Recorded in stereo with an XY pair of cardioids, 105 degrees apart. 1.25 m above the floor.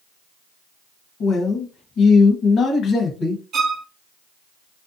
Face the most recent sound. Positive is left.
turn(degrees=-60)